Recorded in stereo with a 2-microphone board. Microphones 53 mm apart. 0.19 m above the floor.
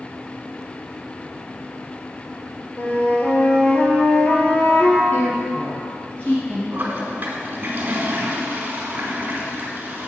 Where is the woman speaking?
25° left (ahead or behind), 3.5 m.